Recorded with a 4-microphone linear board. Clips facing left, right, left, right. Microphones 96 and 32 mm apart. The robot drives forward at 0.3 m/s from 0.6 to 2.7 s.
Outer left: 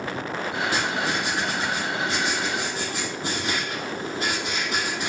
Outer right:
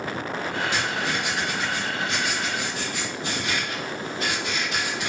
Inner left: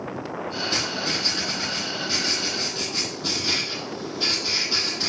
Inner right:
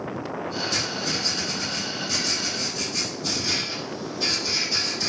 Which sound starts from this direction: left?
Writing, at 0.7 s.